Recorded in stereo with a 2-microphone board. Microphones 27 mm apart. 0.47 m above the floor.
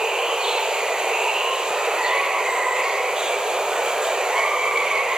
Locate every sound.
0.0 s running water: 30° right (ahead or behind), 1.0 m